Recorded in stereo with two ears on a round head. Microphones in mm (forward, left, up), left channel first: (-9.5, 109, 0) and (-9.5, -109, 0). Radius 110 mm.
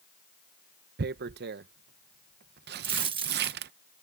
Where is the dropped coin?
20° right (ahead or behind).